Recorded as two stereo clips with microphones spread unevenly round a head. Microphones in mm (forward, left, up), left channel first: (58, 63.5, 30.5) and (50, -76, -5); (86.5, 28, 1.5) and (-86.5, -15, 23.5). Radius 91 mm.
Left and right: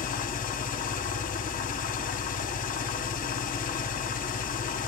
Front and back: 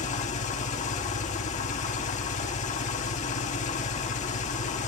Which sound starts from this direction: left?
An engine running, at 0.0 s.